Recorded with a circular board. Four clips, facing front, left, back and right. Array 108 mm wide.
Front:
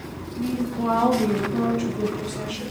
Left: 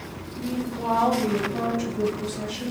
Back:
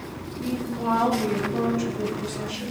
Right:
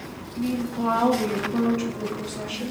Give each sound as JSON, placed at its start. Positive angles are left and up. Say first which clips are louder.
{"t": 0.4, "sound": "a woman speaking", "louder": "right 3 dB, front 3 dB", "azimuth_deg": -90, "distance_m": 4.0}